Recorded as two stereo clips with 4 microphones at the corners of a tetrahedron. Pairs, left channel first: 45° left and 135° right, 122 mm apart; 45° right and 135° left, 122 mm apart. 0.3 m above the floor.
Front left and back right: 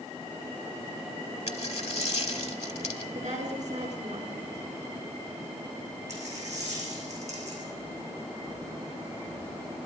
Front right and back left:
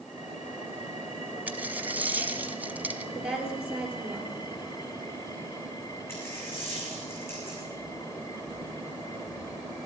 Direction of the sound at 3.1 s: 145° right.